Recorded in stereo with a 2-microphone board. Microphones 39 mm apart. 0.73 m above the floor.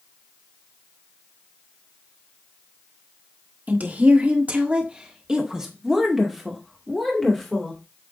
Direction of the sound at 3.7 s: 45° right (ahead or behind).